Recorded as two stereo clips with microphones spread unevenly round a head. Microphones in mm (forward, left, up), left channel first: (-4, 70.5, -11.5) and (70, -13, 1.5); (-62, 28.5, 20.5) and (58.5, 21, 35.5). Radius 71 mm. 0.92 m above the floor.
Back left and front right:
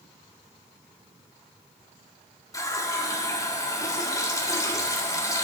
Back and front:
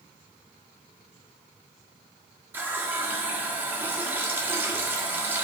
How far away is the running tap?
About 1.5 m.